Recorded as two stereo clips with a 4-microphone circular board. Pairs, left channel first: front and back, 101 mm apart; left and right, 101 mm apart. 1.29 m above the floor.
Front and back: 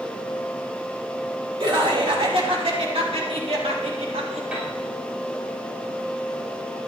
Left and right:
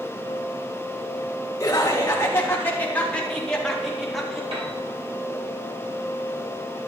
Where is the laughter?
145° left, 2.5 m; by 4.4 s 175° right, 3 m.